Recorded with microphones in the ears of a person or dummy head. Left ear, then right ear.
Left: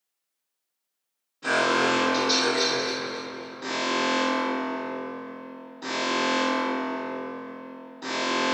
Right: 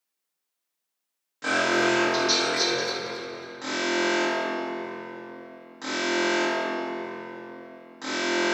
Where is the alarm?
65° right (ahead or behind), 0.8 m.